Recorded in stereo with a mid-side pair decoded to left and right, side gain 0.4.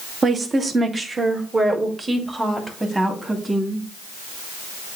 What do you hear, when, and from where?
0.2 s a woman speaking: 45° right, 1.4 m; by 3.9 s 15° right, 3 m